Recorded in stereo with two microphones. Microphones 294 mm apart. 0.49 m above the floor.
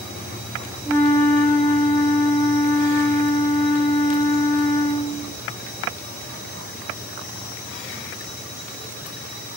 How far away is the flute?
About 1.9 m.